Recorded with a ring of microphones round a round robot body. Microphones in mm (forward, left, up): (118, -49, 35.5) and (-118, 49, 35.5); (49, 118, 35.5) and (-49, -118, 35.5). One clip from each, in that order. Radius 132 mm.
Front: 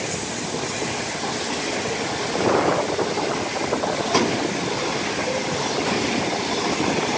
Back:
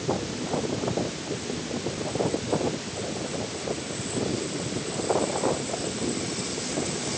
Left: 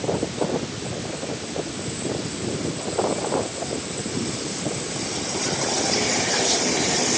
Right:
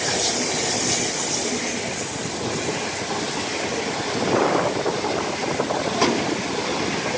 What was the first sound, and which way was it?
Only background noise.